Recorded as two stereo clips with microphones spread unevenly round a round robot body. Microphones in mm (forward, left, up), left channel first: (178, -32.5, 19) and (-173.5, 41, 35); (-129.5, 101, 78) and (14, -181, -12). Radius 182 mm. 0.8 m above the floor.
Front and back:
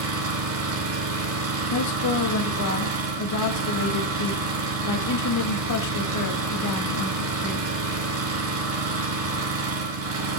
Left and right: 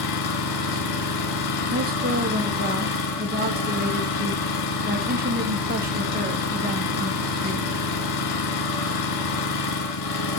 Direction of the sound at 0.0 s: 115° left.